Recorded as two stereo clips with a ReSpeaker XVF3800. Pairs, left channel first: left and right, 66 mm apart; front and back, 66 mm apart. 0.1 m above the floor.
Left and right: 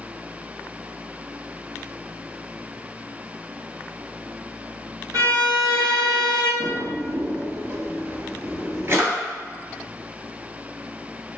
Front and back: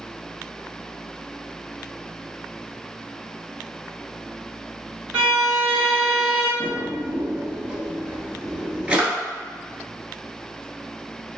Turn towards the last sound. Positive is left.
turn(degrees=-115)